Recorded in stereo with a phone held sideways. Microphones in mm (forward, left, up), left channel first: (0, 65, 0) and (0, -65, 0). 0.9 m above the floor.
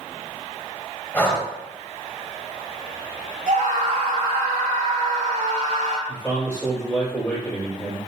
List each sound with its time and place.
1.1 s breathing: 10° left (ahead or behind), 2.0 m
3.5 s a scream: 75° right (ahead or behind), 3 m
6.1 s a man speaking: 10° left (ahead or behind), 4 m